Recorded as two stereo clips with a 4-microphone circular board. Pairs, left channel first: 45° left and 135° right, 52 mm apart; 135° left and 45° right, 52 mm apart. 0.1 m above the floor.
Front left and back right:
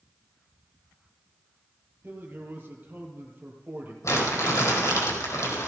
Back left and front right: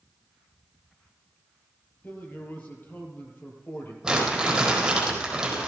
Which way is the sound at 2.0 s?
Straight behind.